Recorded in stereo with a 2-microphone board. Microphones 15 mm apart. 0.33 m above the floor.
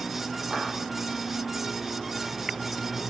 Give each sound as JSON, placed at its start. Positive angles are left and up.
{"t": 0.5, "sound": "a clap", "side_deg": -60, "distance_m": 9.0}